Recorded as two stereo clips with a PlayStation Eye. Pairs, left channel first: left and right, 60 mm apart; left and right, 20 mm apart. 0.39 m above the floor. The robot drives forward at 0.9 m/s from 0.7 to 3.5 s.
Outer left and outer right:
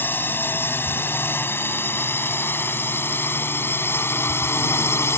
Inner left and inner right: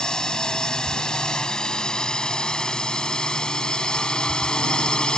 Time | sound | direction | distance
0.0 | a drone | 35° left (ahead or behind) | ?